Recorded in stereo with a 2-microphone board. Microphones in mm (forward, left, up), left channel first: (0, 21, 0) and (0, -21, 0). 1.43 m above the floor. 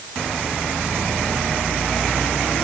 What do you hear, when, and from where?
Only background noise.